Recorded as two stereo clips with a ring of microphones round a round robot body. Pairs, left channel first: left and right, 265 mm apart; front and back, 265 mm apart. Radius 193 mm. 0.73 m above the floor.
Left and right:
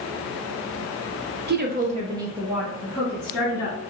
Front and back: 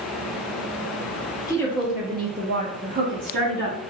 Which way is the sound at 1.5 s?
70° right.